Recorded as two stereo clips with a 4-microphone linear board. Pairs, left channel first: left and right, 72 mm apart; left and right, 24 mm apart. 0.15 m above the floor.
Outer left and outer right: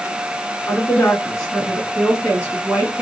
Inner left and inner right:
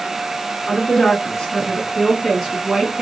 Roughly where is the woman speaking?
Left.